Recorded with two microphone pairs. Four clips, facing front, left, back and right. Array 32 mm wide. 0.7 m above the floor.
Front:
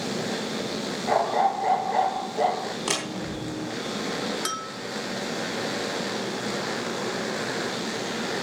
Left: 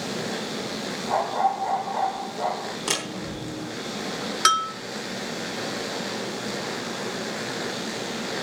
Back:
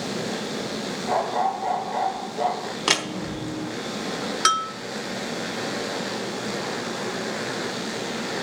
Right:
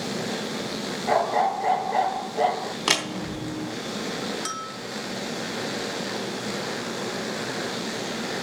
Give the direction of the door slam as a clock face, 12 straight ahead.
5 o'clock.